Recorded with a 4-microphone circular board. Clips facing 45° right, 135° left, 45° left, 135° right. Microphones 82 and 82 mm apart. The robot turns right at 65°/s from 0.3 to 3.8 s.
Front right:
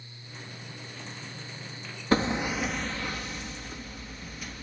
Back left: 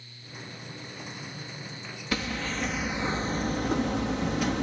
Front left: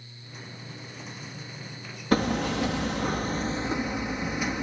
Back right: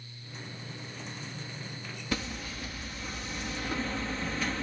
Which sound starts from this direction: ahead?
Hammering, at 2.1 s.